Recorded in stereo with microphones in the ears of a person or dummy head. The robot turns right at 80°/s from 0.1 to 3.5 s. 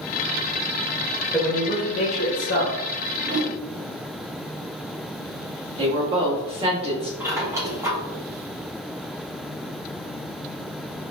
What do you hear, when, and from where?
1.3 s a man speaking: 15° left, 1.3 m; by 2.8 s 130° left, 1.3 m
3.2 s a whoosh: 60° right (ahead or behind), 1.8 m; by 3.6 s 40° right (ahead or behind), 1.8 m
5.8 s a woman speaking: 30° right (ahead or behind), 1.1 m
7.2 s a squeak: 10° right (ahead or behind), 1.1 m